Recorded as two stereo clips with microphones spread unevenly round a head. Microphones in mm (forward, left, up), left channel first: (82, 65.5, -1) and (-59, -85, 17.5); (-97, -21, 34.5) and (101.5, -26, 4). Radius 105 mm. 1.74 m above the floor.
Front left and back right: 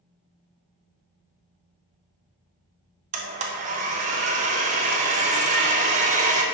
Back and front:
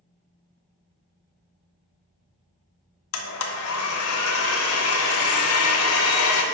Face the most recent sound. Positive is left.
turn(degrees=170)